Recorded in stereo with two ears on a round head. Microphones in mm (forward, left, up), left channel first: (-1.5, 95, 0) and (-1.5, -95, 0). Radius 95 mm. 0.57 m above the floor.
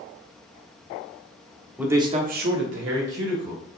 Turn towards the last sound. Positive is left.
turn(degrees=-55)  # may be behind; listen again after turning